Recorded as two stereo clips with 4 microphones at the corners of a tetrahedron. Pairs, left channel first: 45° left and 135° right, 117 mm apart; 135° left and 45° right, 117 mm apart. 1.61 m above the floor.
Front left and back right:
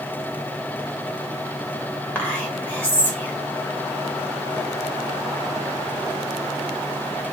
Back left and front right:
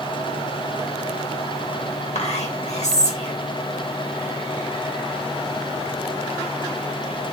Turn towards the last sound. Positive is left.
turn(degrees=120)